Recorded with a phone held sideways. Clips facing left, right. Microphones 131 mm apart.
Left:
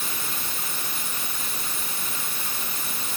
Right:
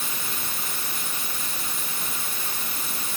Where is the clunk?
I don't hear a clunk.